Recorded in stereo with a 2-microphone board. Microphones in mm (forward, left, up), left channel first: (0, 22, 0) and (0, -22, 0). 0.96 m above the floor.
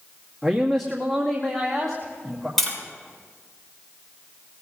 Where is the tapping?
Centre (ahead or behind), 7.5 m.